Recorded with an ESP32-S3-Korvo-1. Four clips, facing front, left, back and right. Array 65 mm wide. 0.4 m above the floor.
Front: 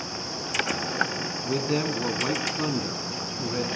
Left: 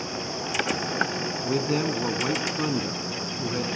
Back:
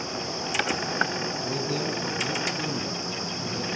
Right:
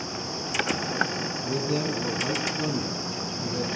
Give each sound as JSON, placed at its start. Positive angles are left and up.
{"t": 1.4, "sound": "a man speaking", "azimuth_deg": 55, "distance_m": 3.5}